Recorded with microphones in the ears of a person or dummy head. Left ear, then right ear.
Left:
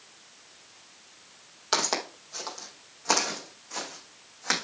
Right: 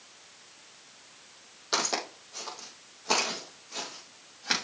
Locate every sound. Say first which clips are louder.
1.7 s footsteps: left 2 dB; 40° left (ahead or behind), 3.5 m